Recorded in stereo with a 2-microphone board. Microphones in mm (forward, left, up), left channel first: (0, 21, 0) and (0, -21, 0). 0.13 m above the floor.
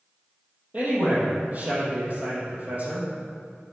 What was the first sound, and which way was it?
A man speaking, 40° right (ahead or behind).